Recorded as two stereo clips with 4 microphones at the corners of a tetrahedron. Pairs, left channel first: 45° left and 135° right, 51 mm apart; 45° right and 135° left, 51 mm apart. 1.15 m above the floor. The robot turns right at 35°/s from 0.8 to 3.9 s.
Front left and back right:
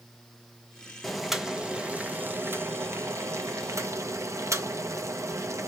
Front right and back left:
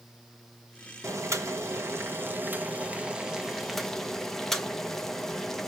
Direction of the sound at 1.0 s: 130° left.